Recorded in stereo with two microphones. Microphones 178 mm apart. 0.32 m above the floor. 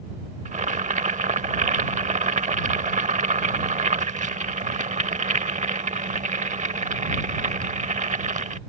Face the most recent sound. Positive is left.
turn(degrees=-45)  # may be behind; listen again after turning